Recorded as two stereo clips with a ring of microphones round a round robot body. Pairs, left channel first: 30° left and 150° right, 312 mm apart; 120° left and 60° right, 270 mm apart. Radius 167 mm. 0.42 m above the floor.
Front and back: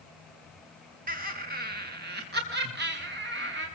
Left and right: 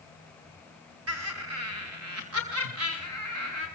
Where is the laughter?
90° right, 3 m; by 3.7 s 95° right, 5.5 m.